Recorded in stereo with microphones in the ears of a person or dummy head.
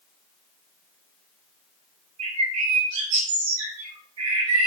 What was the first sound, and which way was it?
A bird, 75° right (ahead or behind).